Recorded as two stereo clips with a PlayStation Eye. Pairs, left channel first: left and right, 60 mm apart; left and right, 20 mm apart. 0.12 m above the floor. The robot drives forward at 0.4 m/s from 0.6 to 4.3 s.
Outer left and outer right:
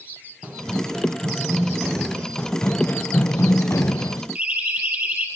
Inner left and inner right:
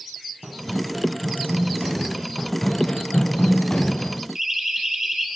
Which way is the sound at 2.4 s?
15° left (ahead or behind).